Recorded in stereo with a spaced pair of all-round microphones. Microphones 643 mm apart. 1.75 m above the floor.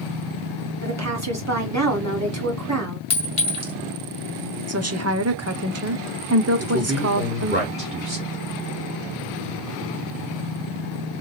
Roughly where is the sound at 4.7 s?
Right.